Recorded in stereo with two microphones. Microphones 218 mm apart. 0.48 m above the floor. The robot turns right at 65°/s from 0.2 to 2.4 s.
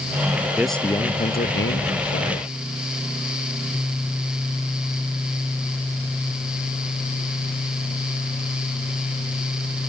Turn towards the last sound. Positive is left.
turn(degrees=110)